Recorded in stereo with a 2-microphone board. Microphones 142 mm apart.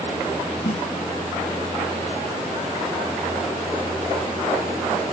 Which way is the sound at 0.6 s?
60° left (ahead or behind).